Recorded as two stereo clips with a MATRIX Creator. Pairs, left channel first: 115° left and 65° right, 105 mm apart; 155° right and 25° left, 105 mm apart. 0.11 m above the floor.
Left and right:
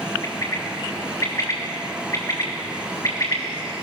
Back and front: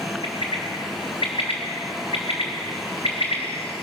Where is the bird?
170° left, 3.5 m.